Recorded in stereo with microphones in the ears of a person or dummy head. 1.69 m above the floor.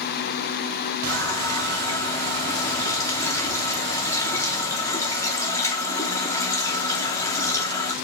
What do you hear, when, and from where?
1.1 s a running tap: 15° left (ahead or behind), 2 m